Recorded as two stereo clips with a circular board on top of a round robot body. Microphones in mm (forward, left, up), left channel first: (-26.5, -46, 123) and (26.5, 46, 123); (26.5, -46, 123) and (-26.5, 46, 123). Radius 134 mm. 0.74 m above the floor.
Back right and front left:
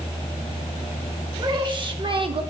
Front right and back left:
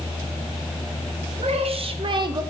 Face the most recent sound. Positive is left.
turn(degrees=75)